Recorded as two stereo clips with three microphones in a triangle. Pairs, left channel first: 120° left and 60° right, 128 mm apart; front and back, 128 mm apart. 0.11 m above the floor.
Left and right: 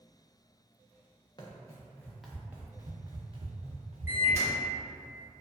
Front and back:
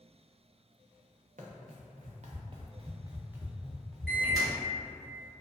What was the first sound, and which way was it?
Running footsteps, 175° left.